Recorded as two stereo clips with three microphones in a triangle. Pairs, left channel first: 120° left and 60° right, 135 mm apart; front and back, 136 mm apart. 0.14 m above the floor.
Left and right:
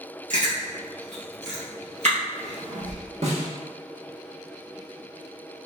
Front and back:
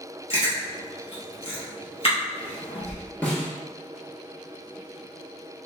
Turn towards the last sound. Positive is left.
turn(degrees=-75)